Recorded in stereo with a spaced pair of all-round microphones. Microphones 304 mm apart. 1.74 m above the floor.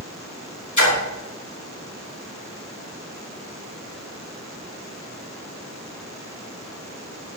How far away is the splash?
About 5.5 m.